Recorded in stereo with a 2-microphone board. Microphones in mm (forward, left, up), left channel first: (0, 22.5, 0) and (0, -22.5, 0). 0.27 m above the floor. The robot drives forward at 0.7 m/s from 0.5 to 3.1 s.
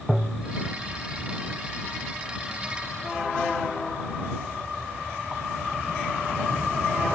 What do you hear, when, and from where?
0.1 s tapping: 10° right (ahead or behind), 0.6 m